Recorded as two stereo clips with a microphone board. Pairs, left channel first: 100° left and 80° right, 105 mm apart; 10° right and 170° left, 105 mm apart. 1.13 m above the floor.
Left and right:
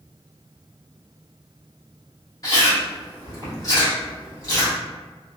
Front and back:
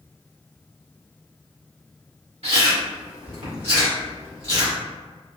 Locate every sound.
2.4 s chewing: 155° left, 1.4 m